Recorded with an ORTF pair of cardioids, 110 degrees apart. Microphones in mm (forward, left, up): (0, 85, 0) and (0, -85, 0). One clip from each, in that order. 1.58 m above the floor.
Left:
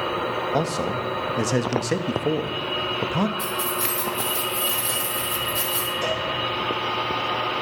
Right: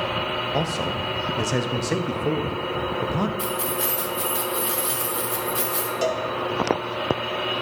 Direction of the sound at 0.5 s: 10° left.